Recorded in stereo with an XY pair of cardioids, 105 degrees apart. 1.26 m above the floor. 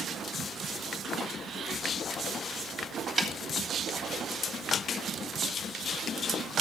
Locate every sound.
3.2 s a snare drum: 25° right, 1.7 m